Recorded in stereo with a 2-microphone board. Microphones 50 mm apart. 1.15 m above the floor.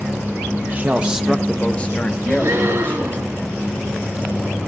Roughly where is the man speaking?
Right.